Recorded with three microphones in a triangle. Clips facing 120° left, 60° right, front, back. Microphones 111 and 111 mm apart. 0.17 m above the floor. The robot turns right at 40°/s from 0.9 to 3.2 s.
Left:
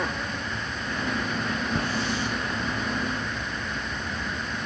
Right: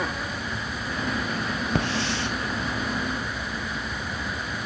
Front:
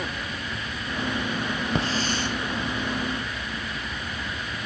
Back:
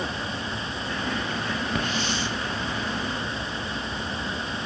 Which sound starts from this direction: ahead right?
A hiss, at 1.8 s.